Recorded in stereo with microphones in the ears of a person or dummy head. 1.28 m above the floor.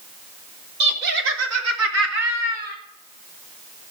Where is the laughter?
60° right (ahead or behind), 1.8 m; by 2.8 s 45° right (ahead or behind), 1.8 m.